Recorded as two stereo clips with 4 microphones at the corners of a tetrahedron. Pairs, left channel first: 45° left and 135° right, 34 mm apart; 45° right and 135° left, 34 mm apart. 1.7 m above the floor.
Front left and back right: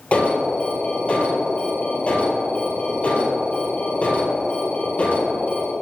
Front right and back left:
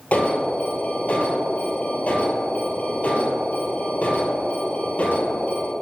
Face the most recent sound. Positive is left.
turn(degrees=0)